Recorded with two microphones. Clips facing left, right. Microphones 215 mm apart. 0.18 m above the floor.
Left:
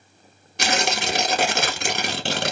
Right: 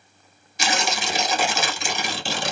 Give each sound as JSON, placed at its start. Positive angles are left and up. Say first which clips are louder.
{"t": 0.6, "sound": "tearing paper", "louder": "left 2 dB", "side_deg": 65, "distance_m": 0.9}